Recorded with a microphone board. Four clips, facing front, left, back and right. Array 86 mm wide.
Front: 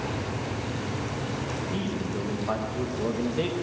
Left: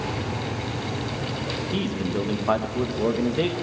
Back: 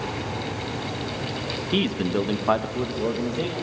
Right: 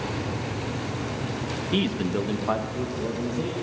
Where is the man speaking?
160° right, 1.2 m; by 3.5 s 90° left, 1.2 m.